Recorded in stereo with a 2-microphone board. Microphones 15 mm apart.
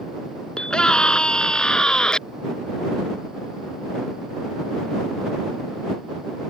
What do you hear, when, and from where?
0.6 s a scream: 60° left (ahead or behind); by 2.2 s 50° left (ahead or behind)